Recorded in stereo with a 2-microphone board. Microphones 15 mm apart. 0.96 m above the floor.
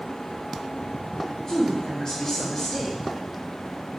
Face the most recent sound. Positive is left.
turn(degrees=60)  # may be behind; listen again after turning